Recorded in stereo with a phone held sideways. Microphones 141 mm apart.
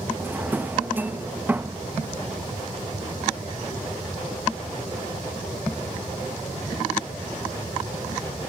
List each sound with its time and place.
0.2 s a drawer: 15° right (ahead or behind), 0.9 m